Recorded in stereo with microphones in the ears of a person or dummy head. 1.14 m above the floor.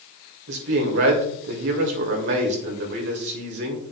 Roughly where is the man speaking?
Right.